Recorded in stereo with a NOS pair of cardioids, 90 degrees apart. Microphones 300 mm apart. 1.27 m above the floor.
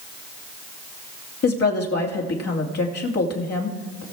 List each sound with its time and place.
1.4 s a woman speaking: 55° left, 2.5 m